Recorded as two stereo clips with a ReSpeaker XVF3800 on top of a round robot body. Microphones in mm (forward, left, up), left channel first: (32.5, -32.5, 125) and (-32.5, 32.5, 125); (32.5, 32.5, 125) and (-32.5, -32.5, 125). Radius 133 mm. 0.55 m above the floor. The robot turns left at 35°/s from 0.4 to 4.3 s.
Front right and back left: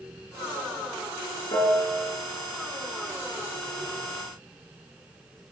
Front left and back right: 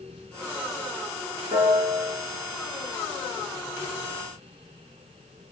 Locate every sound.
1.5 s a piano: 90° right, 5.5 m; by 2.1 s 115° right, 5.5 m